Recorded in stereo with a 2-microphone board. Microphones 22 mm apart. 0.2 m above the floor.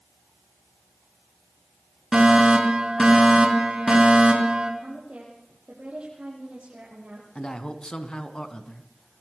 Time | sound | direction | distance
2.1 | a fire alarm | 45° right (ahead or behind) | 4.5 m
4.8 | a woman speaking | 65° right (ahead or behind) | 6 m
7.3 | a man speaking | 45° left (ahead or behind) | 2.0 m